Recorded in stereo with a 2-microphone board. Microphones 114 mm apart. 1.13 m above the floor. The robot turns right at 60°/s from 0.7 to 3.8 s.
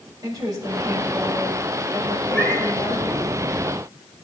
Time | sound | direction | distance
0.2 | a woman speaking | 35° right | 5 m
2.3 | a cat meowing | 5° left (ahead or behind) | 6 m